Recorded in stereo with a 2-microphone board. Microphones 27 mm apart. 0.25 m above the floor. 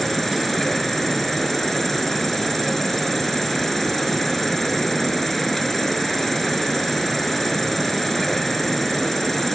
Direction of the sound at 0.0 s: 10° left (ahead or behind).